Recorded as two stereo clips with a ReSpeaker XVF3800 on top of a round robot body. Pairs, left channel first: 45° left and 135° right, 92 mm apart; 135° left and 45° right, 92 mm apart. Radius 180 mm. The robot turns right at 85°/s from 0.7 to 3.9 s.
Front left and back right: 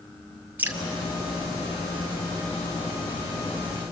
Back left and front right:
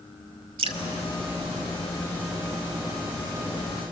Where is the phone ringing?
I don't hear a phone ringing.